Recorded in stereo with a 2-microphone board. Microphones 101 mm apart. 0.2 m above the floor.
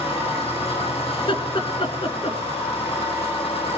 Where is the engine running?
75° left (ahead or behind), 8 m.